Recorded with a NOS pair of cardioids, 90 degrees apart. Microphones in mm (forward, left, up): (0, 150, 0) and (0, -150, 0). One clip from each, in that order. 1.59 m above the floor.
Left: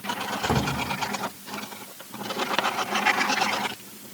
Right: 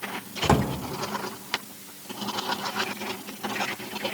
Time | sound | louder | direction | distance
0.4 | a drawer | right 3 dB | 40° right | 3 m